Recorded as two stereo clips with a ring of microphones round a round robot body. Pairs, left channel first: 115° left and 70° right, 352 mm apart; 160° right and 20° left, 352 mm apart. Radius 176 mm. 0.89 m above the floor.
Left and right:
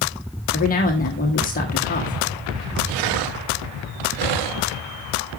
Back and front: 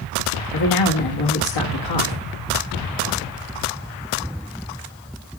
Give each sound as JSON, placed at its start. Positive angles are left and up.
{"t": 0.5, "sound": "a man speaking", "azimuth_deg": 180, "distance_m": 1.5}